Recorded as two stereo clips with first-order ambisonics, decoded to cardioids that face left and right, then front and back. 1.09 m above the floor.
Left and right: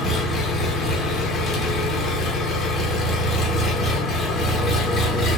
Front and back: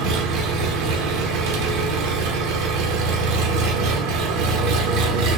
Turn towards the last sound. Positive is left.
turn(degrees=155)